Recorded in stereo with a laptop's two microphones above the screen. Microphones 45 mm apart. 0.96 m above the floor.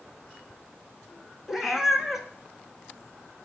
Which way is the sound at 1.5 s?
10° right (ahead or behind).